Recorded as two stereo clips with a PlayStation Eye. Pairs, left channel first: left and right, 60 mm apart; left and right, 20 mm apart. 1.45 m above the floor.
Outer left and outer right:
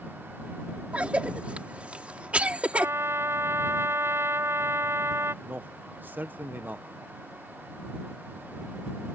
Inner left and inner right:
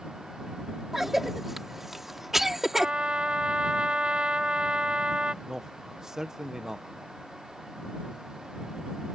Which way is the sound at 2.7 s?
45° right (ahead or behind).